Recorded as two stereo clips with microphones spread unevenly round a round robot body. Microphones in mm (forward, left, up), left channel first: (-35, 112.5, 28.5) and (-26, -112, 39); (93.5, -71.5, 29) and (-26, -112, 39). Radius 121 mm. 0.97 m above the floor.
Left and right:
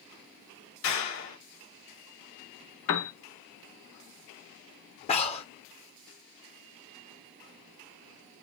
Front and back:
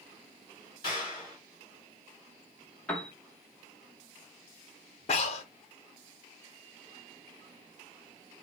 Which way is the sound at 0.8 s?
90° left.